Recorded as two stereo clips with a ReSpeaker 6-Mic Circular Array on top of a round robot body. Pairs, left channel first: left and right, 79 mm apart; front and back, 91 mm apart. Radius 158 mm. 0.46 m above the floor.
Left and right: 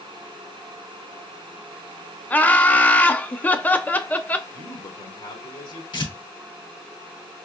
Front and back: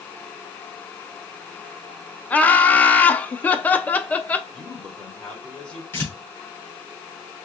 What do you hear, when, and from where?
2.3 s laughter: 50° left, 0.8 m
4.5 s a man speaking: 80° left, 2.5 m
5.9 s tearing paper: 70° left, 3 m